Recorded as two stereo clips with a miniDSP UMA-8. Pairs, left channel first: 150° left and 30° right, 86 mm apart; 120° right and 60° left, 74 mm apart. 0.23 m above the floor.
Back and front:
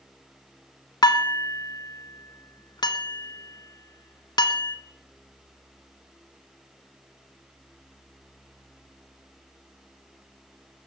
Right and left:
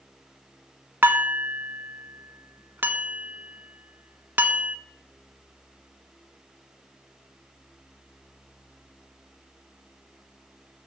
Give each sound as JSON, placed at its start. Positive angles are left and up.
{"t": 1.0, "sound": "dishes clattering", "azimuth_deg": 120, "distance_m": 1.4}